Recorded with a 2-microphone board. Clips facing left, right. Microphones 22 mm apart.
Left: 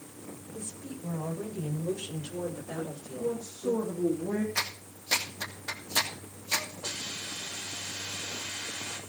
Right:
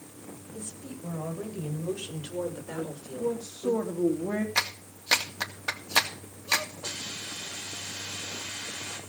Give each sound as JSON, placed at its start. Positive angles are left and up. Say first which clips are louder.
{"t": 0.5, "sound": "a woman speaking", "louder": "even", "side_deg": -20, "distance_m": 9.5}
{"t": 2.8, "sound": "a woman speaking", "louder": "right 3 dB", "side_deg": -50, "distance_m": 3.0}
{"t": 4.5, "sound": "a clap", "louder": "right 4 dB", "side_deg": -65, "distance_m": 2.0}
{"t": 6.8, "sound": "a hiss", "louder": "even", "side_deg": -25, "distance_m": 6.5}